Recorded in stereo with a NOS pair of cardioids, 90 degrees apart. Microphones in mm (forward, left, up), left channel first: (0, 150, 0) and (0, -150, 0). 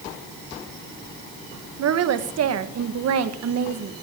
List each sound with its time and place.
1.8 s a woman speaking: 60° right, 1.7 m